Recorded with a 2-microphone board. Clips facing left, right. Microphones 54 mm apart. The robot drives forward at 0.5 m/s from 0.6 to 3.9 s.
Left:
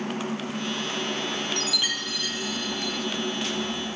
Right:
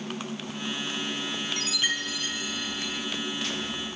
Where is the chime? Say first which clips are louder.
Even; 20° right (ahead or behind), 0.9 m; by 3.1 s 15° right (ahead or behind), 1.1 m.